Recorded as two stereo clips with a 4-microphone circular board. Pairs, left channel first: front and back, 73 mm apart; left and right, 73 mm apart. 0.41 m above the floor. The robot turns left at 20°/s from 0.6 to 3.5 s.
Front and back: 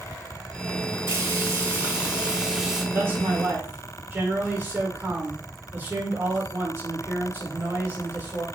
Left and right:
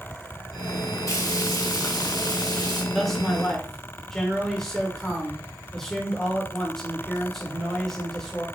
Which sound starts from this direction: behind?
A man speaking, at 2.9 s.